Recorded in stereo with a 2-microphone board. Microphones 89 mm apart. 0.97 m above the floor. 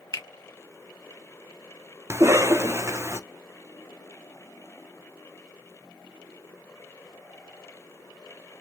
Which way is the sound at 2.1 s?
30° right (ahead or behind).